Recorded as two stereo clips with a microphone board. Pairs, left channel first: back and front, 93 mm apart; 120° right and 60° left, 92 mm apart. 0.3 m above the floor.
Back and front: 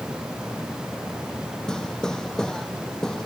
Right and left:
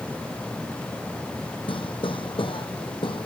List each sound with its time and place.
1.7 s hammering: 100° right